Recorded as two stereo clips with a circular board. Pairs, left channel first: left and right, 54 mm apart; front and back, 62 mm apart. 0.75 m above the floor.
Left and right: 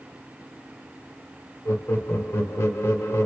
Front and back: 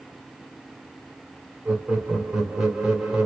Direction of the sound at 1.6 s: 105° left.